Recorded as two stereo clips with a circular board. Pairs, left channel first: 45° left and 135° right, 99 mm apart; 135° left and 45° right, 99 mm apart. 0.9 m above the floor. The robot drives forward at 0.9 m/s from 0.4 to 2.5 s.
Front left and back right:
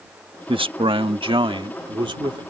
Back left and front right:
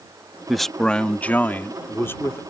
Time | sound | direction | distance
0.5 | a man speaking | 135° right | ?